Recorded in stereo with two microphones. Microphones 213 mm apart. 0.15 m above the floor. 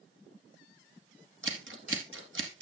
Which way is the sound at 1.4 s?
70° right (ahead or behind).